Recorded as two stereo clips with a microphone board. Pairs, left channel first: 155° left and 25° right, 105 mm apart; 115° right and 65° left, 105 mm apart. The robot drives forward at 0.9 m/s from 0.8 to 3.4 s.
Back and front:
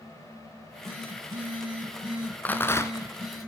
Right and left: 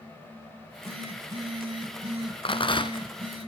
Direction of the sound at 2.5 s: 130° right.